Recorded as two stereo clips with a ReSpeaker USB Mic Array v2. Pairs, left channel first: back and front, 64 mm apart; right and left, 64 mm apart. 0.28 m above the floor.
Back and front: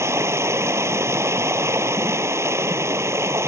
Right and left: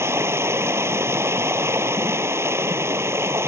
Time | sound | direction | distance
0.0 | running water | 45° left | ?